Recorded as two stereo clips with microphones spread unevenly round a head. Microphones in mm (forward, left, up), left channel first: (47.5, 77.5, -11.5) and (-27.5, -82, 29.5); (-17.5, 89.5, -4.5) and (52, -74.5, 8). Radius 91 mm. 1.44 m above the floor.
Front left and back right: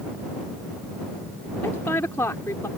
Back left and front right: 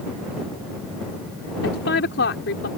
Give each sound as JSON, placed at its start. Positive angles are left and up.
{"t": 1.6, "sound": "a woman speaking", "azimuth_deg": 145}